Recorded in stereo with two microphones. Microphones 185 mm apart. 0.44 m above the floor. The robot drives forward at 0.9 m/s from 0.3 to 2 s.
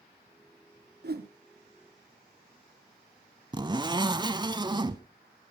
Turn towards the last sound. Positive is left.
turn(degrees=-25)  # may be behind; listen again after turning